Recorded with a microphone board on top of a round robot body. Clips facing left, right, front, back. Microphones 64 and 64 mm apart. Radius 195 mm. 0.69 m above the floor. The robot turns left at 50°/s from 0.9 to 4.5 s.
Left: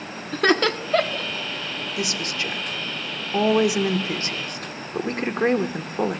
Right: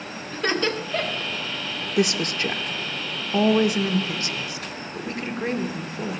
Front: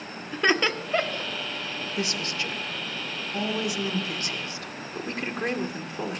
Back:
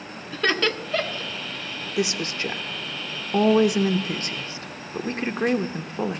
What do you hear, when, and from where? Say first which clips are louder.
0.3 s laughter: left 5 dB, even; 75° left, 1.7 m; by 1.3 s 55° left, 1.7 m
2.0 s a woman speaking: right 7 dB, back 6 dB; 105° right, 1.2 m; by 6.2 s 125° left, 1.2 m